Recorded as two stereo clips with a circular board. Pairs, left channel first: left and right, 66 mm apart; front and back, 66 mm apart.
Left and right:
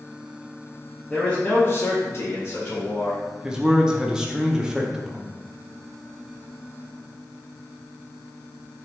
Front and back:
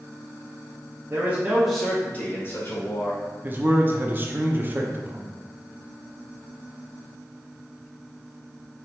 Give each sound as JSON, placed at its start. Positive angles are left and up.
{"t": 1.1, "sound": "a man speaking", "azimuth_deg": 160, "distance_m": 0.9}
{"t": 3.4, "sound": "a man speaking", "azimuth_deg": -160, "distance_m": 0.6}